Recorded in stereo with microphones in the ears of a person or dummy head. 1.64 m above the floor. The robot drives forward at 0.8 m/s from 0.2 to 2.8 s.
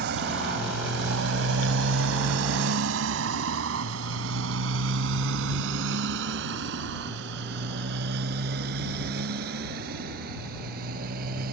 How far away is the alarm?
I don't hear an alarm.